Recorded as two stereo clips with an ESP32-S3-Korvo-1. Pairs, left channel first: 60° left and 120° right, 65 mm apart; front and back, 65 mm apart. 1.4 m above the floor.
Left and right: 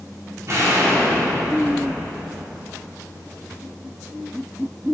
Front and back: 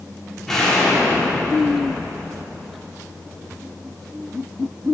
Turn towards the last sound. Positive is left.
turn(degrees=-80)